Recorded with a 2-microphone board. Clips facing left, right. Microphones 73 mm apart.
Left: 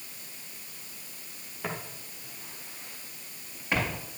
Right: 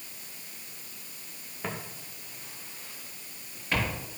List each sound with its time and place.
1.6 s footsteps: 5° left (ahead or behind), 3 m; by 4.0 s 20° left (ahead or behind), 5 m